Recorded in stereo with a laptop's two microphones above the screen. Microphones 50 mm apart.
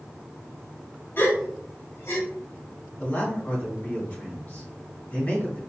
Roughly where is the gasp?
Left.